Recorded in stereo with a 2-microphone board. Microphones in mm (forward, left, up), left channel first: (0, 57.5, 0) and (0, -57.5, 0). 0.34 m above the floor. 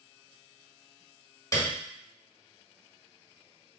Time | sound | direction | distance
1.5 | a piano | 30° left (ahead or behind) | 1.4 m